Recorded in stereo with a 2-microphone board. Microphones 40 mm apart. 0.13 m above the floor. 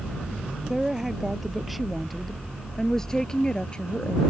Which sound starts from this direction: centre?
A woman speaking, at 0.7 s.